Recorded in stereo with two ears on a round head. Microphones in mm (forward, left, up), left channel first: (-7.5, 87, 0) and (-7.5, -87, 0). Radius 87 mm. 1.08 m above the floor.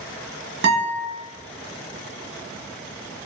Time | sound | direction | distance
0.6 | a guitar | 55° right (ahead or behind) | 0.9 m